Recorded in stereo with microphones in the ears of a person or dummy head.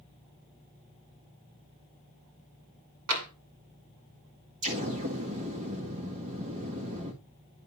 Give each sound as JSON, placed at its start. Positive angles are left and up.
{"t": 3.1, "sound": "tapping", "side_deg": -85, "distance_m": 2.0}
{"t": 4.6, "sound": "an explosion", "side_deg": -35, "distance_m": 1.9}